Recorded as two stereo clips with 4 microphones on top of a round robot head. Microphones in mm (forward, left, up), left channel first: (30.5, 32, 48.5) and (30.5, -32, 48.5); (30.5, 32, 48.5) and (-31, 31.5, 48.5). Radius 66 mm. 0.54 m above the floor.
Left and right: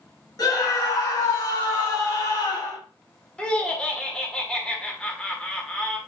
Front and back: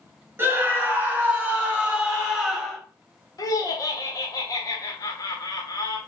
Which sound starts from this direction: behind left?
A scream, at 0.4 s.